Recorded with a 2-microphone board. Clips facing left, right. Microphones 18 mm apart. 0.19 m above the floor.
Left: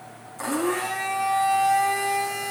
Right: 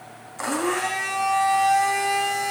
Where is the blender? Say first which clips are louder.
Right 1 dB; 35° right (ahead or behind), 8.5 m.